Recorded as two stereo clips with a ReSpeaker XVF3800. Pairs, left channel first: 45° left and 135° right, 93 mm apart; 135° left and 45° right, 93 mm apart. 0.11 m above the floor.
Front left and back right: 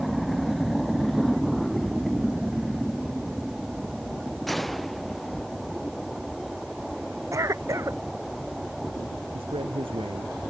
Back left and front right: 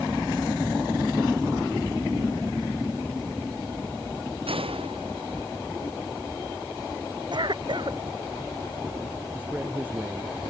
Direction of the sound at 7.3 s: 80° right.